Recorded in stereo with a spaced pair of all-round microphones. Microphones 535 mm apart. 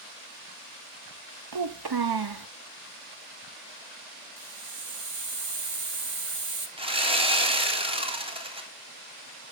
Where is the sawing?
10° right (ahead or behind), 1.7 m.